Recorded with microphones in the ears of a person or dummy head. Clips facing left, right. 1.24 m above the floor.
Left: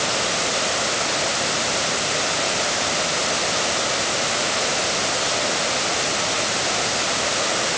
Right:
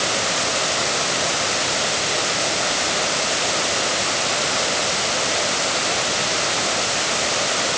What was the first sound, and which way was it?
Only background noise.